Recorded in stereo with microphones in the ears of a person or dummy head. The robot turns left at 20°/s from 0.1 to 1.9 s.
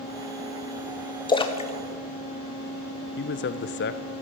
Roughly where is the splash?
Centre.